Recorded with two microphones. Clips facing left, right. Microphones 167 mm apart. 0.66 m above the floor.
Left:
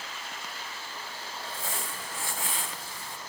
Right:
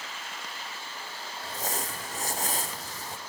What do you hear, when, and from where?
1.4 s crumpling: 40° right (ahead or behind), 1.1 m